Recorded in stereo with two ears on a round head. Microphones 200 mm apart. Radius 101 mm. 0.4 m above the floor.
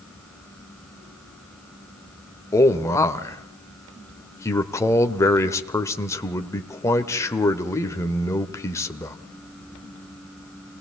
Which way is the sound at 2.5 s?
15° left (ahead or behind).